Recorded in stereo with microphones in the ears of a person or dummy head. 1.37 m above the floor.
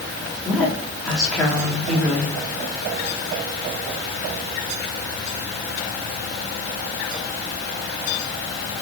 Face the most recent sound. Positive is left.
turn(degrees=5)  # may be behind; listen again after turning